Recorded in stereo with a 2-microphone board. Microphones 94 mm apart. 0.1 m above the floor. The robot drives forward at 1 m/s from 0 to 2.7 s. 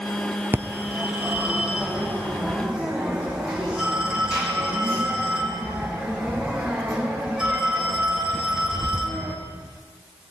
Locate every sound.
0.5 s a phone ringing: 25° right (ahead or behind), 1.3 m; by 9.3 s 10° right (ahead or behind), 3 m